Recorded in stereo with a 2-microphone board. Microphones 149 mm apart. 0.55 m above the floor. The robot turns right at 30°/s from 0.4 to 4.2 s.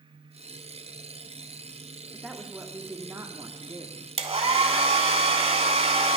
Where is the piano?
No piano in this recording.